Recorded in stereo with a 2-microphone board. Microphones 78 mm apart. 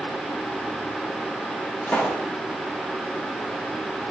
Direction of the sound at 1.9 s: 20° left (ahead or behind).